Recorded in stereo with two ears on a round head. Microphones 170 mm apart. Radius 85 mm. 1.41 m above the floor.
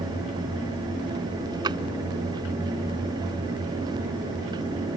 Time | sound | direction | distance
1.6 | a drawer | 25° right (ahead or behind) | ?